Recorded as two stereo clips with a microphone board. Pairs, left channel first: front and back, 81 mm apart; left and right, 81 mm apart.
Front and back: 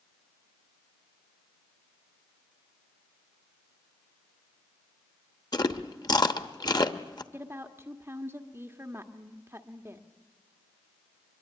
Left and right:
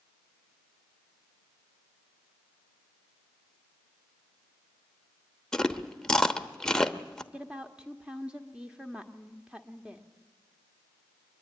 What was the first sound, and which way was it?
Chewing, 10° left.